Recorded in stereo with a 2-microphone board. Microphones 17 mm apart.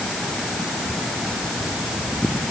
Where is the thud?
No thud in this recording.